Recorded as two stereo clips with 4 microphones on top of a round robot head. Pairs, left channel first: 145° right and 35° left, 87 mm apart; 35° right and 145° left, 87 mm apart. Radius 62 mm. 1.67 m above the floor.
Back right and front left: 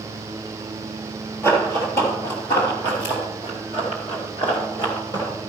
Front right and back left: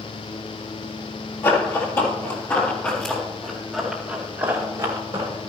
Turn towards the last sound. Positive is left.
turn(degrees=170)